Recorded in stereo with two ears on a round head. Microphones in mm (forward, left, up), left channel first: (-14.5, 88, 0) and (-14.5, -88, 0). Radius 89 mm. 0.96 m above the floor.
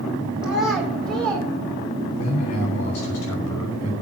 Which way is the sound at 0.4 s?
5° right (ahead or behind).